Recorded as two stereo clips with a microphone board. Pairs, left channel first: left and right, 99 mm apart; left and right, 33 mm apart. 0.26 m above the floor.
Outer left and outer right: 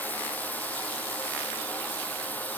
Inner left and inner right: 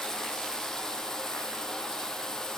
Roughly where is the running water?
Centre.